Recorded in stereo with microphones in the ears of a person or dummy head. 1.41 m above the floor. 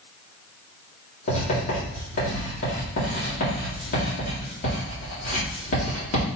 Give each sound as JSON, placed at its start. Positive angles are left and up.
{"t": 1.3, "sound": "writing", "side_deg": 40, "distance_m": 3.5}